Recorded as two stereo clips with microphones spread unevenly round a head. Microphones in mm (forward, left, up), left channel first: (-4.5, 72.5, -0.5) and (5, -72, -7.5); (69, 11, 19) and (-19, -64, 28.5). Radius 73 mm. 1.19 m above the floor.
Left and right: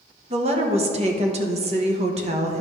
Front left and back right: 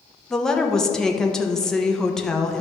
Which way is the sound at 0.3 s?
45° right.